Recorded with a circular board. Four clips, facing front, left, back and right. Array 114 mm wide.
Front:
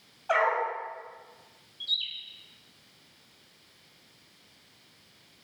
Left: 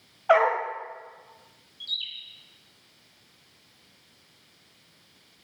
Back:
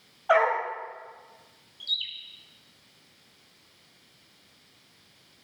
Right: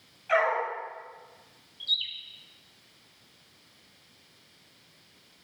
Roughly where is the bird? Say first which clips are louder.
Right 3 dB, even; behind right.